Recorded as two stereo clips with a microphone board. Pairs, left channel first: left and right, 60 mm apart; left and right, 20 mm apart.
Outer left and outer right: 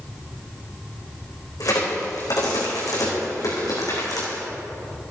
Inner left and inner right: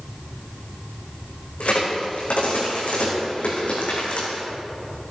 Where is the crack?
85° left, 4.5 m.